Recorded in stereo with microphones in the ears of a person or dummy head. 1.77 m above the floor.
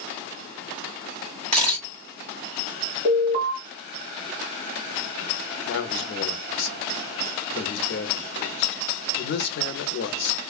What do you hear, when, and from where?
1.5 s a camera shutter: 30° right (ahead or behind), 2 m
3.0 s an alarm: 50° right (ahead or behind), 1.0 m
5.7 s a man speaking: 75° left (ahead or behind), 0.7 m